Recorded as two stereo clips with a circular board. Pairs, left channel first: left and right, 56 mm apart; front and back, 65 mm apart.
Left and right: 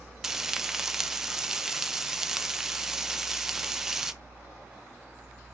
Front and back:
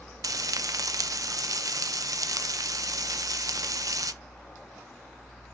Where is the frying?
170° right, 0.6 m.